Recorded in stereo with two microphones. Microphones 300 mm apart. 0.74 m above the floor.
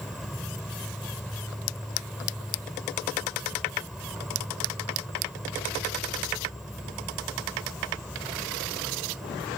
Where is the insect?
Centre (ahead or behind).